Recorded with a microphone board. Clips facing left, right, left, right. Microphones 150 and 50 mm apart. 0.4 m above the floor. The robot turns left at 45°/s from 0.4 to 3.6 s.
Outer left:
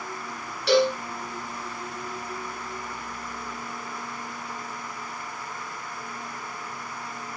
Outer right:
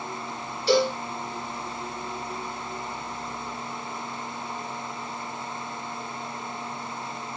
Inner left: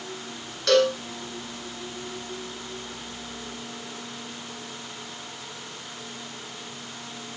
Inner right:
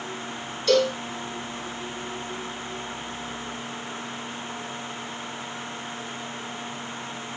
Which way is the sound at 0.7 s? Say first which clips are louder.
Outer left 1 dB, inner left 1 dB; 80° left.